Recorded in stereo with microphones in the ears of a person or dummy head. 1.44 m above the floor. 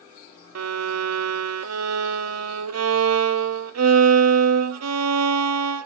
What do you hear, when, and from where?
0.6 s a violin: 75° right (ahead or behind), 0.5 m